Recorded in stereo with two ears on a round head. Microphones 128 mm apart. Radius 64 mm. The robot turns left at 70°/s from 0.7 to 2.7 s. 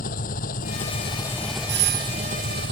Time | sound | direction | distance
0.0 | an engine running | 60° left | ?
1.7 | a doorbell | 80° right | ?